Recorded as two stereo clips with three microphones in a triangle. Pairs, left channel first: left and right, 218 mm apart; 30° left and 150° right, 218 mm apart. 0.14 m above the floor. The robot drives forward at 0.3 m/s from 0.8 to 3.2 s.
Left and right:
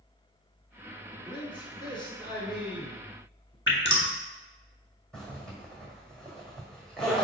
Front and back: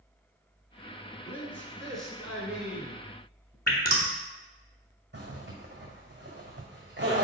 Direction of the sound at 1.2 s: 85° left.